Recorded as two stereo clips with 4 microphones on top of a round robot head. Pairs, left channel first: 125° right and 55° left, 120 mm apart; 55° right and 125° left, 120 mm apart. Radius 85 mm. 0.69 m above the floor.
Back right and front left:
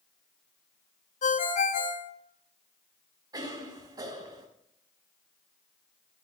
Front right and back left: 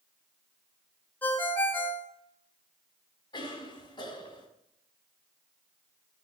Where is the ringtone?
130° right, 1.6 m.